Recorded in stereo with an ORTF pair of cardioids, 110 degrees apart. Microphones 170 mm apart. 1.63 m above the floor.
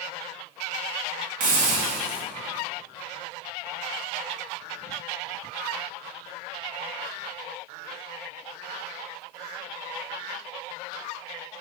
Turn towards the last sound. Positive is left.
turn(degrees=-50)